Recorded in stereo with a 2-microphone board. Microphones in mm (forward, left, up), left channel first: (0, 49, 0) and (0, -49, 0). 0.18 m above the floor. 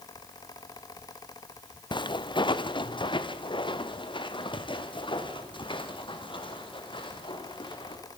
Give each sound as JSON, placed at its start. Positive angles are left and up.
{"t": 1.9, "sound": "footsteps", "side_deg": 55, "distance_m": 0.8}